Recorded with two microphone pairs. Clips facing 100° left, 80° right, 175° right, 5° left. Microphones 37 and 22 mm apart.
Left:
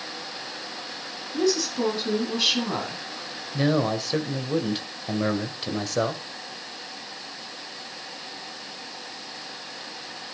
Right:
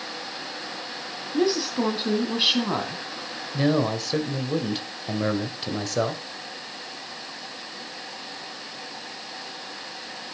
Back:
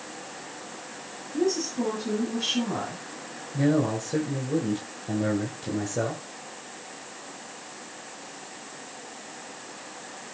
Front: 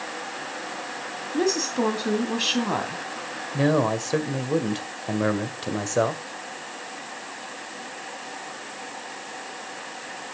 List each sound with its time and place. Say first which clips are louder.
1.3 s a woman speaking: right 1 dB, front 2 dB; 10° right, 2.5 m
3.5 s a man speaking: even, front 2 dB; 15° left, 2.0 m